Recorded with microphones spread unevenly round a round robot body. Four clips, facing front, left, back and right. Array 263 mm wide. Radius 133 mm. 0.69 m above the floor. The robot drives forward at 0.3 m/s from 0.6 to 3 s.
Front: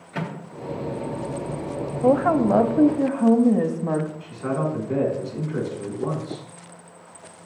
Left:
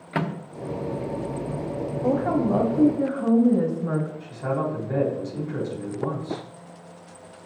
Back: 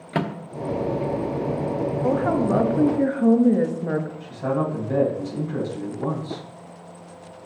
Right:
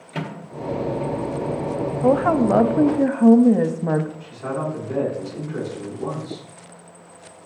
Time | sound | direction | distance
0.1 | a microwave | 165° left | 0.8 m
2.0 | a woman speaking | 50° right | 0.7 m
4.2 | a man speaking | 175° left | 4.5 m